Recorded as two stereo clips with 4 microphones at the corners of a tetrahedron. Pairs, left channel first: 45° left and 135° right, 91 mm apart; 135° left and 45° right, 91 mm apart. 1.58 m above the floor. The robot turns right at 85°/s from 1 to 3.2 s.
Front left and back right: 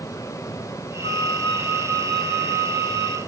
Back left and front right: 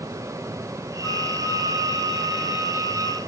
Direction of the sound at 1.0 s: 35° left.